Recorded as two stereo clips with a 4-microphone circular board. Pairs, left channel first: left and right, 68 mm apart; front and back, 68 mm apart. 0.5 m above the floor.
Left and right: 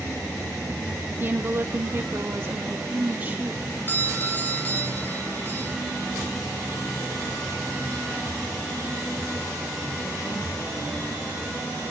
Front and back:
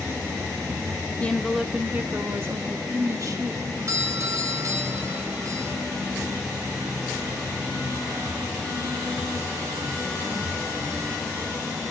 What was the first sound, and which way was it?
A woman speaking, 55° right.